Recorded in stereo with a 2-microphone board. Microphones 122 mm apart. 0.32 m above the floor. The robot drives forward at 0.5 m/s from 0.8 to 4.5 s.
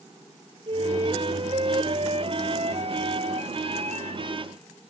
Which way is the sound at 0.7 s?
45° right (ahead or behind).